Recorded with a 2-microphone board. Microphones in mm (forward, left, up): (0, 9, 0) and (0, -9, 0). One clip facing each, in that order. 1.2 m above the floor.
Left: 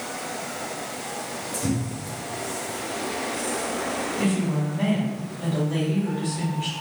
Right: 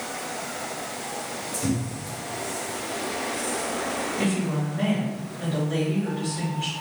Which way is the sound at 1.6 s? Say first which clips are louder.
Even; 50° right (ahead or behind).